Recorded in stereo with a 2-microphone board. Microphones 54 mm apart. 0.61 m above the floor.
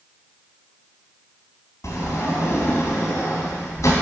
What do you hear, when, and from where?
1.8 s a sliding door: 70° left (ahead or behind), 3 m